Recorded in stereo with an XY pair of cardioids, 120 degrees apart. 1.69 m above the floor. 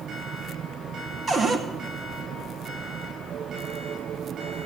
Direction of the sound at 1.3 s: 35° right.